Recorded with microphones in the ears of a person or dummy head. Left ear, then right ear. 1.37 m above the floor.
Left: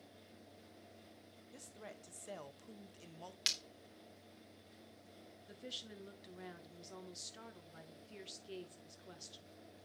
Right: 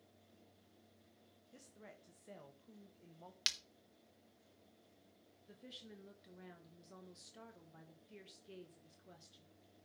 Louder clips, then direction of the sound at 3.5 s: Left 1 dB; centre (ahead or behind).